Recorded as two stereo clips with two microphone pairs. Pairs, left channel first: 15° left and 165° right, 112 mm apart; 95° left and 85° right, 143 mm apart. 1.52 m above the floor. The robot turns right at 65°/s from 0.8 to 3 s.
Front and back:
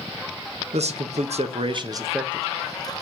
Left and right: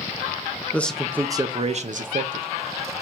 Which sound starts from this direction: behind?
A man speaking, at 0.7 s.